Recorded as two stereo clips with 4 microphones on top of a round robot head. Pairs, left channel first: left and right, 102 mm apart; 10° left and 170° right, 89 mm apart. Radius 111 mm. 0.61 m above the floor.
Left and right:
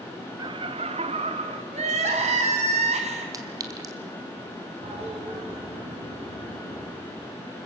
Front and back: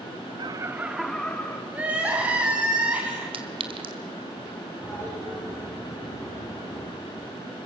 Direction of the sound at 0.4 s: 135° right.